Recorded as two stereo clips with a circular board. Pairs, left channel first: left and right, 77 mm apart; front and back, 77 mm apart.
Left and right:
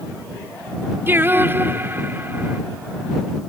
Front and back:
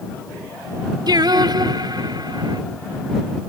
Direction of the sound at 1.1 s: 155° right.